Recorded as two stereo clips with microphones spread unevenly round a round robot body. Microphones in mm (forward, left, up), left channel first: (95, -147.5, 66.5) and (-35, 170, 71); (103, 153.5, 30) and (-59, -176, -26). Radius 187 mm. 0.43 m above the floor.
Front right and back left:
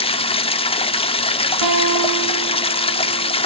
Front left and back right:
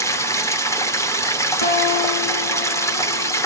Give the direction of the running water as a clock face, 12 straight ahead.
1 o'clock.